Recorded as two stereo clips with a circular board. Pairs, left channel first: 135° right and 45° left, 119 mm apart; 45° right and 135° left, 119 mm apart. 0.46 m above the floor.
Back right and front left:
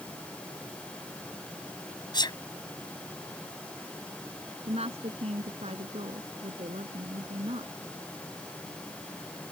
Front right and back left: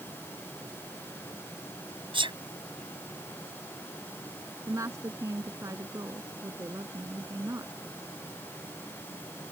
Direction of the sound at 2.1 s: 175° left.